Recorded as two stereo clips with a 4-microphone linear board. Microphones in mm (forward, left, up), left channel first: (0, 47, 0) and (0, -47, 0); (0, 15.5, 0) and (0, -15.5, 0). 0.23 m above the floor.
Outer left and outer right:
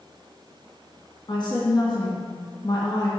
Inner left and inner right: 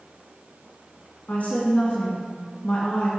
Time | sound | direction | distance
1.3 | a woman speaking | 55° left (ahead or behind) | 2.5 m